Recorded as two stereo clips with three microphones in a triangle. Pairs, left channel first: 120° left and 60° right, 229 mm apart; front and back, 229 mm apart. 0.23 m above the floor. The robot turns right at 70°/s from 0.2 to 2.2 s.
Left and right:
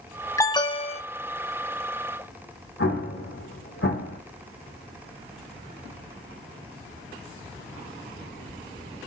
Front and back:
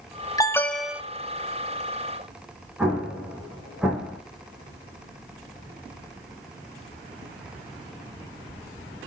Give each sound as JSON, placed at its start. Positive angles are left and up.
{"t": 0.4, "sound": "an alarm", "azimuth_deg": 60, "distance_m": 0.9}
{"t": 2.8, "sound": "an explosion", "azimuth_deg": 95, "distance_m": 3.5}